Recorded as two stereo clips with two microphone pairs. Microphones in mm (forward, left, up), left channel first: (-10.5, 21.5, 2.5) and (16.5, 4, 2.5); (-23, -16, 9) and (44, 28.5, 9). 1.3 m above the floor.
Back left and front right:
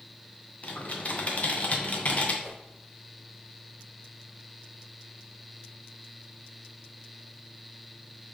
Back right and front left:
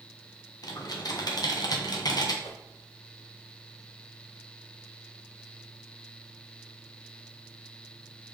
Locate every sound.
0.6 s typing on a keyboard: 175° right, 0.8 m
2.4 s a whoosh: 135° right, 1.9 m